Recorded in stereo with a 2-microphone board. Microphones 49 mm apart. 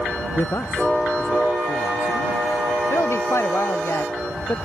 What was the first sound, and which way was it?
A man speaking, 70° left (ahead or behind).